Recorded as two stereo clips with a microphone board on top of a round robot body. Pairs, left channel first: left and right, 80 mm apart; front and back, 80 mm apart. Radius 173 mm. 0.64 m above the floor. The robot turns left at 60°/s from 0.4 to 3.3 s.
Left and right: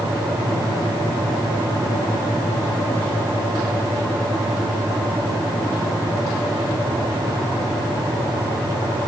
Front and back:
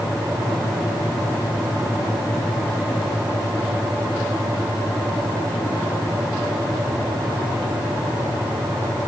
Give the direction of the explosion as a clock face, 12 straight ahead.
No explosion in this recording.